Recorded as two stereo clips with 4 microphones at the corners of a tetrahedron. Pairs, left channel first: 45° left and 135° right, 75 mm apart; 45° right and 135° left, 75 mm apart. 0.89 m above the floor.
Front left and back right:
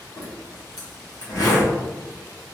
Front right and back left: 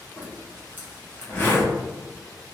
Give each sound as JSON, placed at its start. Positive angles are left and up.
{"t": 0.2, "sound": "a zipper", "azimuth_deg": 15, "distance_m": 1.0}